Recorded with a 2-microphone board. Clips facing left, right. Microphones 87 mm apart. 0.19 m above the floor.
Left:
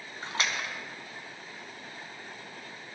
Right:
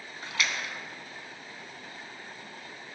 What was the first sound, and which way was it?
A splash, 35° left (ahead or behind).